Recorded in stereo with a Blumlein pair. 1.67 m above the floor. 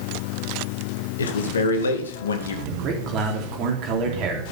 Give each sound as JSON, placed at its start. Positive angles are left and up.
{"t": 1.2, "sound": "a man speaking", "azimuth_deg": 70, "distance_m": 2.0}
{"t": 2.7, "sound": "a man speaking", "azimuth_deg": -35, "distance_m": 3.0}